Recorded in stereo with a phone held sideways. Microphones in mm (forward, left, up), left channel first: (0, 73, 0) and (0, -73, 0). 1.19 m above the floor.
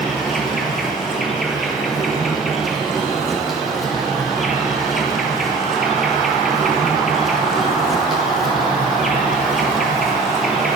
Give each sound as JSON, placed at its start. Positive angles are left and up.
{"t": 0.0, "sound": "an insect", "side_deg": 0, "distance_m": 0.8}